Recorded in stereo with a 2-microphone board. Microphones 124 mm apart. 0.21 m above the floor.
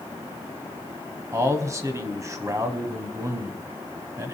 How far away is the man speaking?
About 1.2 m.